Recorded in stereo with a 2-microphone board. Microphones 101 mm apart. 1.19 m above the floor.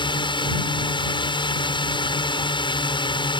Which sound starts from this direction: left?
A drone, at 0.0 s.